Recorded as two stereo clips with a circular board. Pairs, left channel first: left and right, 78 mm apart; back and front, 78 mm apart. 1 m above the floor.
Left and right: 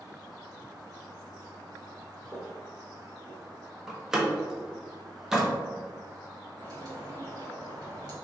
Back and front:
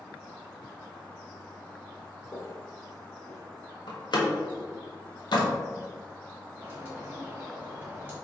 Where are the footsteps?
175° left, 1.6 m; by 3.5 s 145° left, 1.4 m.